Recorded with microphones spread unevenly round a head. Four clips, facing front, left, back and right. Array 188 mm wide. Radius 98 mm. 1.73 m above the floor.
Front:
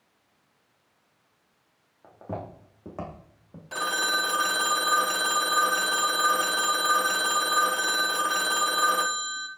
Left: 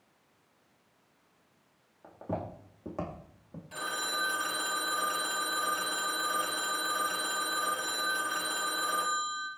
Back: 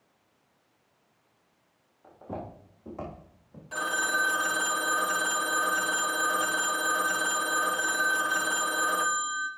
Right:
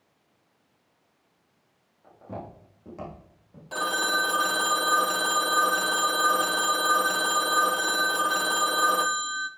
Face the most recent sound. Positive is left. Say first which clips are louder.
# right 9 dB, front 1 dB
turn(degrees=-65)